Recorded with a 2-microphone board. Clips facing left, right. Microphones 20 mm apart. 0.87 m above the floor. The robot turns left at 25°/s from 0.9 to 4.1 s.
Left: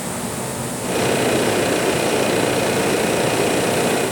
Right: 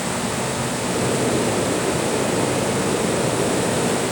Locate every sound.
Only background noise.